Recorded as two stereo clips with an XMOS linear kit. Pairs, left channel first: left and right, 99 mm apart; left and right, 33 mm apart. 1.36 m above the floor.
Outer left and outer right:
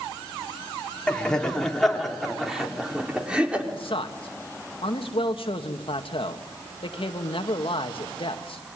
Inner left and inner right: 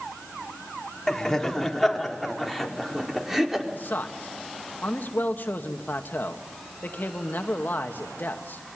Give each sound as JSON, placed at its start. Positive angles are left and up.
{"t": 1.1, "sound": "laughter", "side_deg": 10, "distance_m": 4.0}
{"t": 3.7, "sound": "a man speaking", "side_deg": 75, "distance_m": 2.0}